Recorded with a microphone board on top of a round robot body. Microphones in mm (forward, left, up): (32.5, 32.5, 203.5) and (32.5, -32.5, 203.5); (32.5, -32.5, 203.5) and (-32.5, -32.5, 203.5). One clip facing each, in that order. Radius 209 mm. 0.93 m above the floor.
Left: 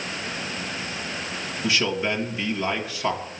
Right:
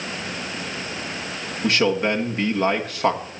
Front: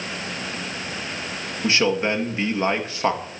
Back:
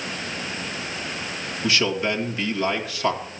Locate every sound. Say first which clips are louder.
1.6 s a man speaking: right 5 dB, front 2 dB; 55° right, 2.5 m